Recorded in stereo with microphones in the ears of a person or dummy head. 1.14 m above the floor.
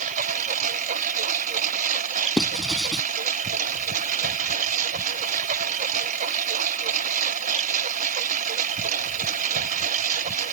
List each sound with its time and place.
0.0 s a lawn mower: 45° right (ahead or behind)
2.4 s writing: centre (ahead or behind)